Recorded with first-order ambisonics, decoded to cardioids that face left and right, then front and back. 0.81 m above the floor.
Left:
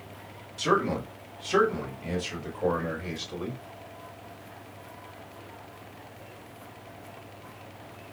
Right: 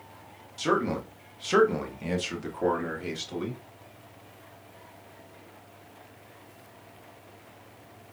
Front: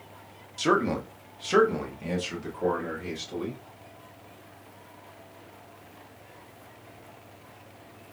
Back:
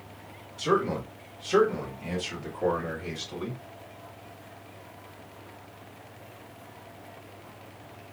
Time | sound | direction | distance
0.6 | a man speaking | 15° right | 1.2 m